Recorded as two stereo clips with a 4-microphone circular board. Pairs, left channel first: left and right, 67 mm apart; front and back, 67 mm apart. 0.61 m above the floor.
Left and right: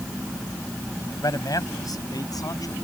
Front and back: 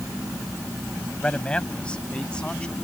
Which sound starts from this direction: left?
A man speaking, at 1.2 s.